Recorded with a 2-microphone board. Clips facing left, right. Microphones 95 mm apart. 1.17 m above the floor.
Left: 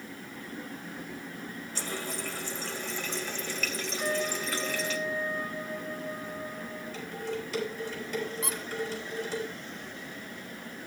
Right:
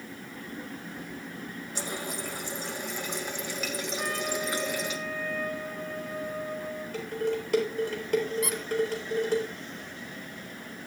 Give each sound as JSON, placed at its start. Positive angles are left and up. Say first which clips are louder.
{"t": 1.8, "sound": "a running tap", "louder": "right 1 dB", "side_deg": -15, "distance_m": 1.1}
{"t": 4.0, "sound": "a trumpet", "louder": "left 2 dB", "side_deg": -85, "distance_m": 9.0}
{"t": 6.9, "sound": "dishes clattering", "louder": "right 7 dB", "side_deg": -60, "distance_m": 4.0}
{"t": 8.4, "sound": "a squeak", "louder": "right 4 dB", "side_deg": 30, "distance_m": 0.5}